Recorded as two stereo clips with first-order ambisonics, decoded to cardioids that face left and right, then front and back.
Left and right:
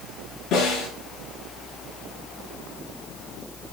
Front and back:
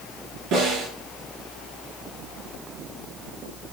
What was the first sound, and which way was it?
A snare drum, 135° left.